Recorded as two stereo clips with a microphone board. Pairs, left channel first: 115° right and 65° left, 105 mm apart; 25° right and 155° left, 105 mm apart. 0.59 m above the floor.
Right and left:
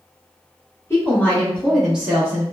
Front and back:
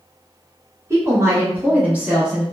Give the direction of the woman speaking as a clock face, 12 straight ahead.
5 o'clock.